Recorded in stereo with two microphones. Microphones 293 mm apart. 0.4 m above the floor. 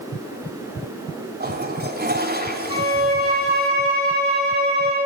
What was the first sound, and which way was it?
A toilet flushing, 30° right (ahead or behind).